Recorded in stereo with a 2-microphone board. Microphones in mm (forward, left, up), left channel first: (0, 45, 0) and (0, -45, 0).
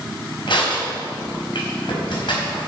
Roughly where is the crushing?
Left.